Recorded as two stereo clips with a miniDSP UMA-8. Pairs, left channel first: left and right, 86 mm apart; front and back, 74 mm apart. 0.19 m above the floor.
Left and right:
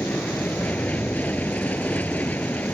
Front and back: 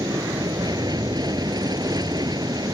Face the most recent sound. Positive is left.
turn(degrees=160)